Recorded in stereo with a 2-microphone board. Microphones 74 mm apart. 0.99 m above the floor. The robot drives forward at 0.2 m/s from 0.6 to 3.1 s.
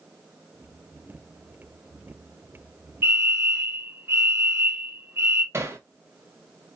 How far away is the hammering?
About 0.6 m.